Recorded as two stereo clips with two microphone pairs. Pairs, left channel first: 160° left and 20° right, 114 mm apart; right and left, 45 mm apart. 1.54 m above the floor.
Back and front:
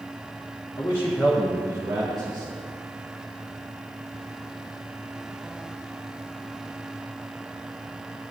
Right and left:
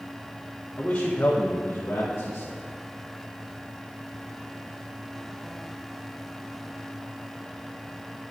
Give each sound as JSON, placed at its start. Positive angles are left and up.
{"t": 0.8, "sound": "a man speaking", "azimuth_deg": -140, "distance_m": 1.3}